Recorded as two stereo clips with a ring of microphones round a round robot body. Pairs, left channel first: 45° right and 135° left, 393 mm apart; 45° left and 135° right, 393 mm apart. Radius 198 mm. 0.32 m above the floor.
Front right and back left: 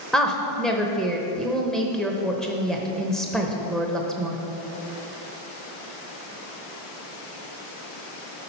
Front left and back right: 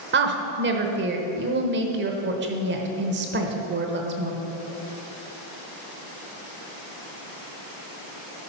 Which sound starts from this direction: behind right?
A woman speaking, at 0.1 s.